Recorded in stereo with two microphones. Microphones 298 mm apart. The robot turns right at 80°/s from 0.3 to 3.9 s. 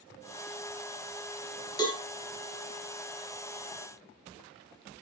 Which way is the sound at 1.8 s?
15° left (ahead or behind).